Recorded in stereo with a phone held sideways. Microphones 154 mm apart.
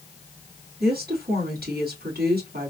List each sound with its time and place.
0.8 s a woman speaking: 85° right, 2.0 m